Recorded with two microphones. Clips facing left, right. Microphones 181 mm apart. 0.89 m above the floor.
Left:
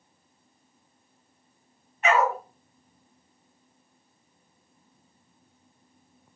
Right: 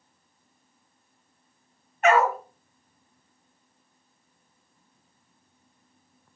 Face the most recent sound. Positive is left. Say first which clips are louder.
# right 3 dB
turn(degrees=-50)  # may be behind; listen again after turning